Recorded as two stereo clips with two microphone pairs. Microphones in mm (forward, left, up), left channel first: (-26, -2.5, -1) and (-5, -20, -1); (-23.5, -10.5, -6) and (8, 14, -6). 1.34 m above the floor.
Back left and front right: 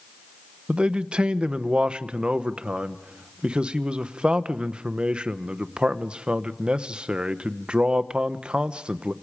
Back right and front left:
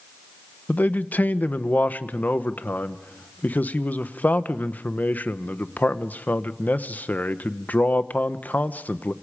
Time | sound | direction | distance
0.7 | a man speaking | 100° right | 1.0 m